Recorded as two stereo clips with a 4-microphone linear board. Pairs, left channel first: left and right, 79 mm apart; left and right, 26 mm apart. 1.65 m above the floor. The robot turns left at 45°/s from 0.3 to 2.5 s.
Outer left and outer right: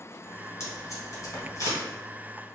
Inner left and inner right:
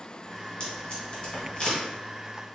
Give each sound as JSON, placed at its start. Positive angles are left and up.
{"t": 0.6, "sound": "tape being pulled", "side_deg": 35, "distance_m": 1.9}